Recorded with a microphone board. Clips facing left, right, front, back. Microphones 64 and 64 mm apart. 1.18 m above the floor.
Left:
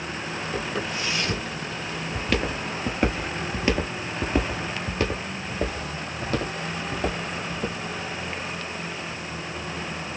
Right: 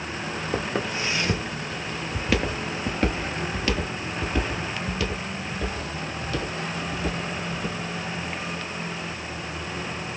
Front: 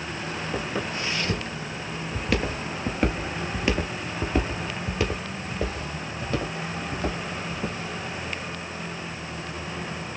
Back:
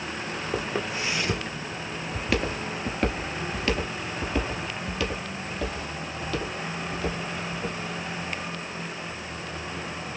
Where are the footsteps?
120° right, 1.5 m; by 7.8 s 60° left, 3 m.